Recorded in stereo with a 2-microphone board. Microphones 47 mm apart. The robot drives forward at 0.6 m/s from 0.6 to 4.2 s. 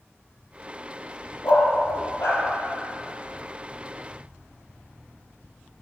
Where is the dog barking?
80° left, 3 m.